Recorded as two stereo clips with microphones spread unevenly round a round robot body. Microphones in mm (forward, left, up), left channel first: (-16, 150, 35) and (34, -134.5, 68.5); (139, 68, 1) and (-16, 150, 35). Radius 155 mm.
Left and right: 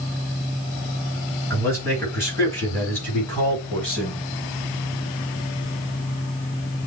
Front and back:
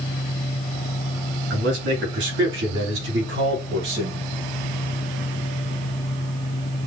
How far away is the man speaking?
About 3 m.